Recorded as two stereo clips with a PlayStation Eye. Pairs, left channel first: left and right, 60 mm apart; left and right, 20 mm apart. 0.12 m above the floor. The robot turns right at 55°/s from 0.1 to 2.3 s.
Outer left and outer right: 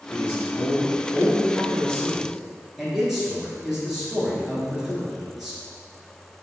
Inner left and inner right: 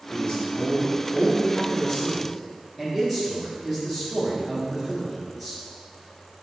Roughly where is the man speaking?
Left.